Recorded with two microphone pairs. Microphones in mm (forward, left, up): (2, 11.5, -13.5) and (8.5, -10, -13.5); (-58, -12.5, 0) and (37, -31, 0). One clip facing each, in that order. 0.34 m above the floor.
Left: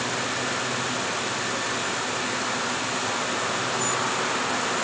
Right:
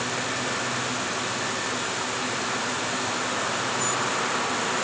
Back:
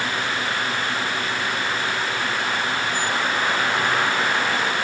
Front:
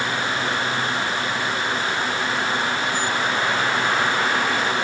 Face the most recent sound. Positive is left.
No sound to turn to.